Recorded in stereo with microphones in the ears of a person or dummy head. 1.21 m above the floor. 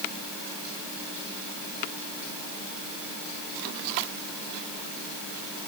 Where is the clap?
No clap in this recording.